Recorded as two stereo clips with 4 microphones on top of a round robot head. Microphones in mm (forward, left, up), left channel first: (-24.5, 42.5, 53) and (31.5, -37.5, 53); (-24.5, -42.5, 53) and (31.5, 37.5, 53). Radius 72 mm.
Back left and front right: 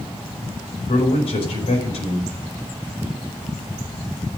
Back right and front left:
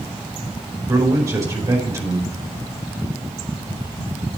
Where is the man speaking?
115° left, 5 m.